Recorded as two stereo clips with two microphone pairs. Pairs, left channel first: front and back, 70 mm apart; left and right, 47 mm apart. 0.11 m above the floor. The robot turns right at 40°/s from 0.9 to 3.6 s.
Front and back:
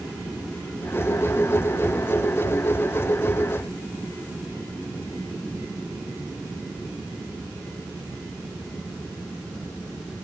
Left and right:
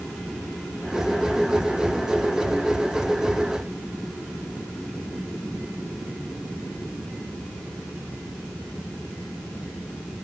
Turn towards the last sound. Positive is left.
No sound to turn to.